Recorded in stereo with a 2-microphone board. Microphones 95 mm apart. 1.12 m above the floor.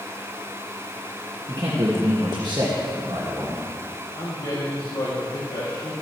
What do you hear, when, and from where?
1.5 s a man speaking: 50° right (ahead or behind), 1.5 m
4.2 s a man speaking: 65° left (ahead or behind), 2 m